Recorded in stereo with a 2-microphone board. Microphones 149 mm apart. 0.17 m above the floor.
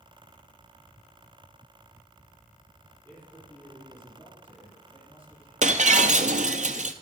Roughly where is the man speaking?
Centre.